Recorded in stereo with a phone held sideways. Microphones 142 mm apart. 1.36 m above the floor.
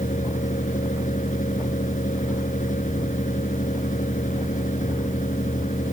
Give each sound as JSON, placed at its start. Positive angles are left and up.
{"t": 0.0, "sound": "a fan", "side_deg": 65}